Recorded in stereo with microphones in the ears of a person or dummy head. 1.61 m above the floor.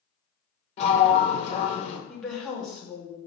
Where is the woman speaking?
5° left (ahead or behind), 1.1 m.